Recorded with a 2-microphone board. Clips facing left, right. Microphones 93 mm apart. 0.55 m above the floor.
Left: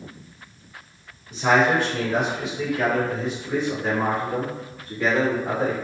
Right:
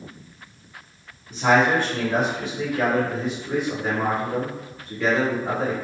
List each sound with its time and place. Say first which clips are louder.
1.3 s a man speaking: even; 55° right (ahead or behind), 2.0 m; by 5.8 s 25° left (ahead or behind), 1.6 m